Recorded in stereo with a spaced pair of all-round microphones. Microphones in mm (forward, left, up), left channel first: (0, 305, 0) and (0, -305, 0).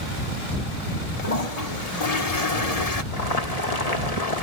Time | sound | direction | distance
1.2 | a toilet flushing | 80° left | ?
3.1 | boiling | 80° left | ?